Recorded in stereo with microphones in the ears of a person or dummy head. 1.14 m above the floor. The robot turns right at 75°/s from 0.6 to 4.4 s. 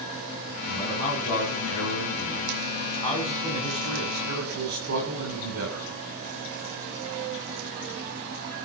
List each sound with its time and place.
0.7 s a man speaking: 15° right, 9 m; by 5.9 s 95° right, 9 m